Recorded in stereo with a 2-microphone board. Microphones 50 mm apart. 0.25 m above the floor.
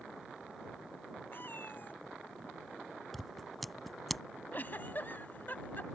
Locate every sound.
1.3 s a cat meowing: 50° left (ahead or behind)
3.1 s scissors: centre (ahead or behind)
4.5 s a giggle: 45° left (ahead or behind)